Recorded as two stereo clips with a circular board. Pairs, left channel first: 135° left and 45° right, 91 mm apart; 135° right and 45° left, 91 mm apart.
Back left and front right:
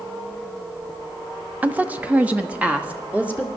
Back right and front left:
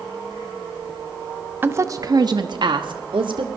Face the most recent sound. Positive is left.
turn(degrees=30)